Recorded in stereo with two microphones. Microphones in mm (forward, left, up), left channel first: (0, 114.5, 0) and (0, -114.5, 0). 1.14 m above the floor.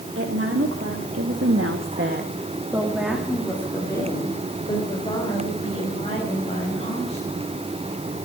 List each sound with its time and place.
0.1 s a woman speaking: 65° right (ahead or behind), 3 m; by 7.4 s 30° left (ahead or behind), 7.5 m